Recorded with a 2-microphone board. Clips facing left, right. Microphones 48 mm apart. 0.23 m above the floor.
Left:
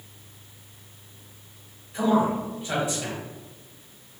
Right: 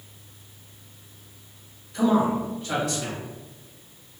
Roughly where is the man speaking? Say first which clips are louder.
Right 1 dB; centre.